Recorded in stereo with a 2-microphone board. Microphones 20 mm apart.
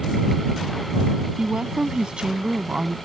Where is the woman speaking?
50° right (ahead or behind).